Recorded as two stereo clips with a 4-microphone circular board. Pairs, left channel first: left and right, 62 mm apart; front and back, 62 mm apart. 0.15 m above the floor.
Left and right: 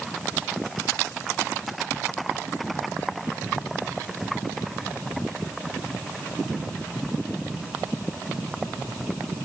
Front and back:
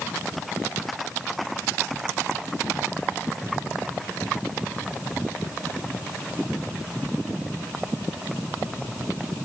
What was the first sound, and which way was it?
Only background noise.